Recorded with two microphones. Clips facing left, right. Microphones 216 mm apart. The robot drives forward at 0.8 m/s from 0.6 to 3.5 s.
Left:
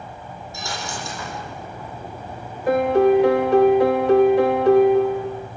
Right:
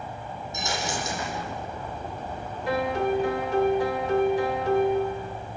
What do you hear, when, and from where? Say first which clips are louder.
0.5 s a dropped coin: right 2 dB; 20° right (ahead or behind), 10 m
2.7 s a piano: left 10 dB; 50° left (ahead or behind), 0.9 m; by 5.5 s 65° left (ahead or behind), 0.7 m